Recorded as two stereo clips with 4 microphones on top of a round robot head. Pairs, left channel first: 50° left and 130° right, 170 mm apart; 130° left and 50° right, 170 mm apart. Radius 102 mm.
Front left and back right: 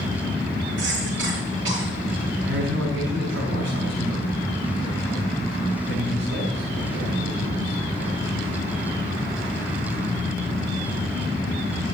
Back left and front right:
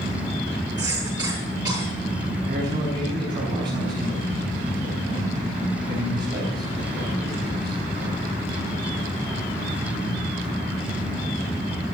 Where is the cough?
120° right, 8 m.